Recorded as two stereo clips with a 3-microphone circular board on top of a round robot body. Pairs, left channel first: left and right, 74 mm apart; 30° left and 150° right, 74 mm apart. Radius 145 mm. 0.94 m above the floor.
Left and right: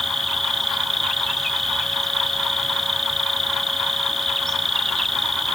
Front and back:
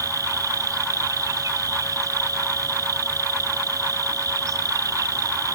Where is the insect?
175° left.